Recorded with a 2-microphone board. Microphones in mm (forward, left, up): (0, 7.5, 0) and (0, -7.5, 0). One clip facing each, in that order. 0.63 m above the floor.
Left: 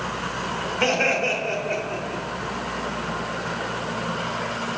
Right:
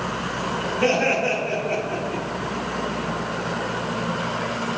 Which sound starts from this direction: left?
Laughter, at 0.8 s.